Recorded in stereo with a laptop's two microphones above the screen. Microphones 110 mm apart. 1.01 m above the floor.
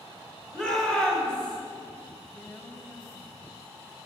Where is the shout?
5° left (ahead or behind), 4 m; by 1.6 s 10° left (ahead or behind), 3 m.